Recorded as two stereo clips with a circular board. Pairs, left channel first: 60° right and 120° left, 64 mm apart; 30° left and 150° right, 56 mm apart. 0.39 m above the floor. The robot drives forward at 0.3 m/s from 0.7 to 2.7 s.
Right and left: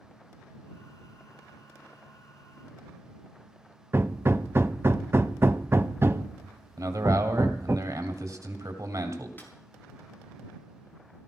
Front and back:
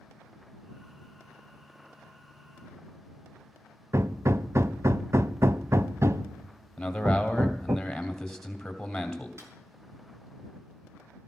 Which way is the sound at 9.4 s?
120° right.